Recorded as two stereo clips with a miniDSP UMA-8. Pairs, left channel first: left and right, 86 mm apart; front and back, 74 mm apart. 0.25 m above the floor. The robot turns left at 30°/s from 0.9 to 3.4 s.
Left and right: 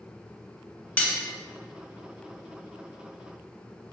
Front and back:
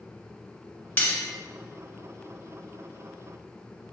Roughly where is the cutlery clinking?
Ahead left.